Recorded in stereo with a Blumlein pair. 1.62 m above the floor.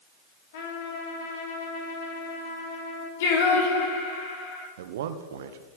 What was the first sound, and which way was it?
A trumpet, 55° left.